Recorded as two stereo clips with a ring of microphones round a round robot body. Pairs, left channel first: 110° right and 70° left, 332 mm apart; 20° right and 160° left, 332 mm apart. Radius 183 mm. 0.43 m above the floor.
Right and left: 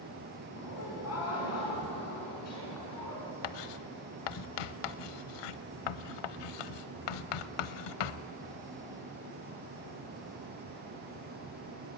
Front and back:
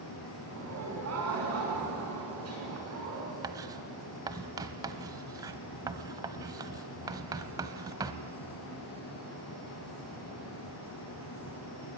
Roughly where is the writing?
Behind right.